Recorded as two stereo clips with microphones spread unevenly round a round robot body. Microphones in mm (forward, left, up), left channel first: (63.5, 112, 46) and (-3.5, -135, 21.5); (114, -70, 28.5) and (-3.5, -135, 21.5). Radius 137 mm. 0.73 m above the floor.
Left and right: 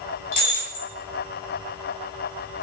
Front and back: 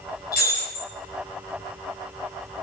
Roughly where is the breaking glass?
Left.